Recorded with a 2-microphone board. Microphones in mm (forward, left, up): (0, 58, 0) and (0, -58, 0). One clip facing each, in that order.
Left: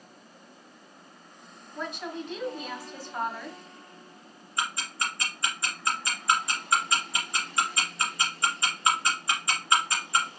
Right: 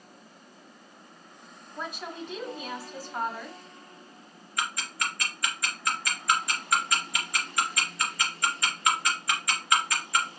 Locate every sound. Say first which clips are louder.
1.8 s a woman speaking: left 2 dB; 5° right (ahead or behind), 1.6 m
4.6 s ticking: left 1 dB; 25° left (ahead or behind), 2 m